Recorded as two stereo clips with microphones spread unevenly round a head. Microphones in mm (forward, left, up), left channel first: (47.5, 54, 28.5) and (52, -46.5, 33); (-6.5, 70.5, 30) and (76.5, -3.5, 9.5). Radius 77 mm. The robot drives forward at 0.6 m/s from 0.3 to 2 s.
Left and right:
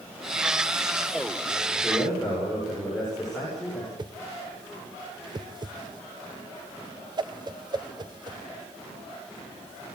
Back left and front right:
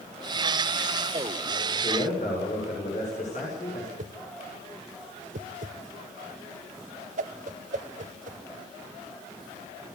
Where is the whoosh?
40° right, 1.2 m.